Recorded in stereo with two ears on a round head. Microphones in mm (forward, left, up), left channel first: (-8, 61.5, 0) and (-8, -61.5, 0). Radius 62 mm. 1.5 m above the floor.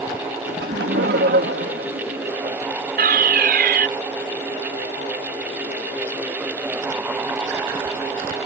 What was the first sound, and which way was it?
Laughter, 85° right.